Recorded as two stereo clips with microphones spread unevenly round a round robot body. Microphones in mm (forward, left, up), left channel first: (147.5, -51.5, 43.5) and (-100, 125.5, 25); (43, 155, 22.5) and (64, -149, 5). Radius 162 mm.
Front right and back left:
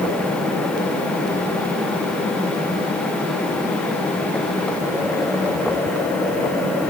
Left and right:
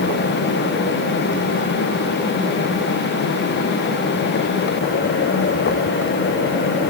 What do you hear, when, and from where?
Only background noise.